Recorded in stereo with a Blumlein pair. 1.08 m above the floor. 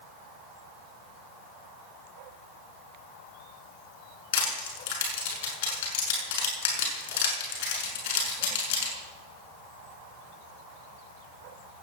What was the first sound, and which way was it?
Crushing, 50° left.